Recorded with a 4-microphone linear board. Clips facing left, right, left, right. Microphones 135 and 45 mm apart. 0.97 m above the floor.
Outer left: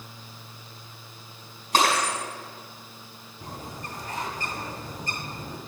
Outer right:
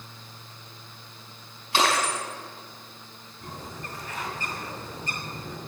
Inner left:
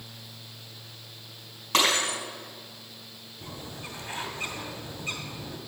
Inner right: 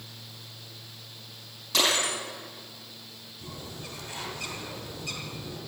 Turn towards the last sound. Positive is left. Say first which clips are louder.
# outer left 1 dB, inner left 1 dB
turn(degrees=40)  # may be behind; listen again after turning